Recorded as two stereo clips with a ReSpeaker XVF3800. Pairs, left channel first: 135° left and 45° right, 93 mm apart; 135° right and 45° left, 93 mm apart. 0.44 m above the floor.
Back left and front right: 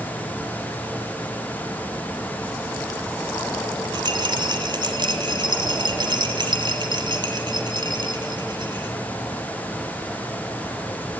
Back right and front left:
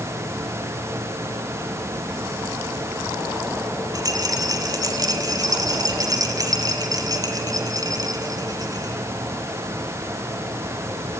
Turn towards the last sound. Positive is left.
turn(degrees=-5)